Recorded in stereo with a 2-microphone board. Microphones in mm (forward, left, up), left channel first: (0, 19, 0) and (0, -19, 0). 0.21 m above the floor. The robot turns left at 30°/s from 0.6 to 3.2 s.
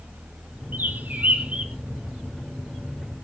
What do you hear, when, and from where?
0.7 s a bird: 60° right (ahead or behind), 1.4 m; by 1.7 s 30° right (ahead or behind), 1.4 m